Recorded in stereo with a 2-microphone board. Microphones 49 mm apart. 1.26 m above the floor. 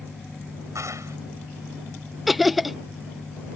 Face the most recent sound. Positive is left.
turn(degrees=-5)  # may be behind; listen again after turning